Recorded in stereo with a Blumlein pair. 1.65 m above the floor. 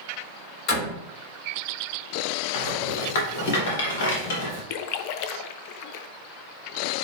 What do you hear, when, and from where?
0.7 s a door slam: 40° left, 4 m
2.5 s a rattle: 50° left, 2.5 m
4.7 s a splash: 45° left, 0.5 m